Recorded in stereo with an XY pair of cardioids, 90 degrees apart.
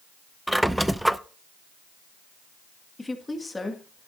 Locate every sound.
0.5 s a squeak: 5° right, 0.6 m
3.0 s a woman speaking: 20° left, 2 m